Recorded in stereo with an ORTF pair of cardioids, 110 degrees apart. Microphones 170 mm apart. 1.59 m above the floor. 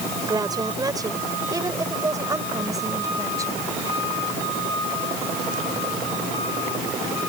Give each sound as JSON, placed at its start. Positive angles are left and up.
{"t": 0.3, "sound": "a woman speaking", "azimuth_deg": -20}